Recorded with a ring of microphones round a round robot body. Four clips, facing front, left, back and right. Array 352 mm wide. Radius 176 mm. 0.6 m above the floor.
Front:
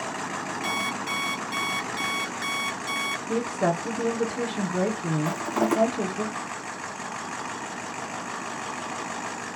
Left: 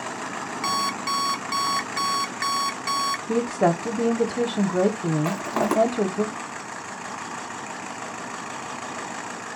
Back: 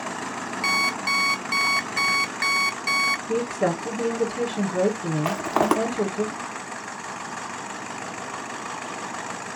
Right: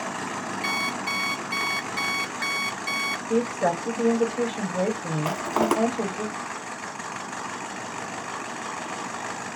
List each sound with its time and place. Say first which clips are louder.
0.6 s an alarm clock: left 7 dB, back 6 dB; 135° left, 0.6 m
3.3 s a woman speaking: left 1 dB, even; 90° left, 1.4 m
5.2 s crushing: even, back 4 dB; 170° right, 1.3 m